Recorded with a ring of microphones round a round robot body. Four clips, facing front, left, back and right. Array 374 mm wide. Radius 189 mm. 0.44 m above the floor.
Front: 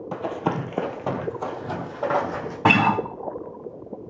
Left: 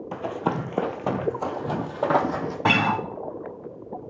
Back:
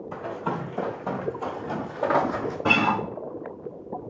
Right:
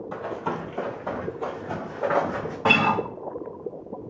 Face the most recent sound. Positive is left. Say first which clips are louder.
# right 1 dB, front 5 dB
turn(degrees=10)